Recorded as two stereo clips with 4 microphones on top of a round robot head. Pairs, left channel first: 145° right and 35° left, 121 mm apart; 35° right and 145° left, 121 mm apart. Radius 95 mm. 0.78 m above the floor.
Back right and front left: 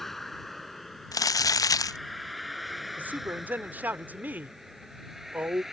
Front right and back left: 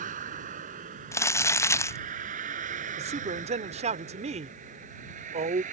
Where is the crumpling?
95° right.